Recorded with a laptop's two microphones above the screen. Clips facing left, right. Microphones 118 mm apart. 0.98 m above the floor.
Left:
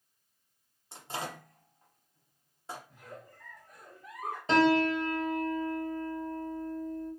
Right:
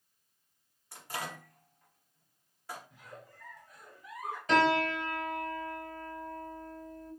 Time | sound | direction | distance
0.9 | a microwave | 25° left (ahead or behind) | 0.6 m
2.9 | a giggle | 50° left (ahead or behind) | 0.8 m
4.5 | a piano | 30° left (ahead or behind) | 0.9 m